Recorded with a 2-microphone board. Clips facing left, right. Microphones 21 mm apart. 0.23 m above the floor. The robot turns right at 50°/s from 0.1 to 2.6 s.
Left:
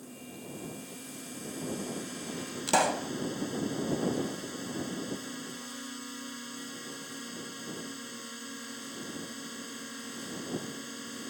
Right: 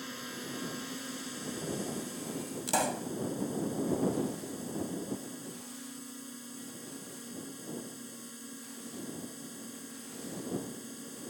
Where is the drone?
80° right; by 11.3 s 45° left.